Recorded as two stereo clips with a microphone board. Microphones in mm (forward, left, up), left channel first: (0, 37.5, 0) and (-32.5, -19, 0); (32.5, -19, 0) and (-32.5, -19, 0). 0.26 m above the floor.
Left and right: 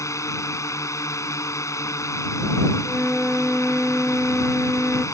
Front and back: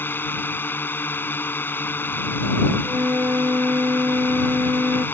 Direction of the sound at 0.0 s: 50° left.